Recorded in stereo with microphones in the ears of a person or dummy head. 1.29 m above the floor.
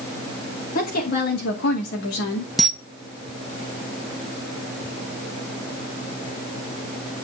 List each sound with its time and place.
0.8 s a woman speaking: 55° left (ahead or behind), 2.5 m; by 2.5 s 85° left, 2.5 m
2.6 s a camera shutter: centre (ahead or behind), 1.1 m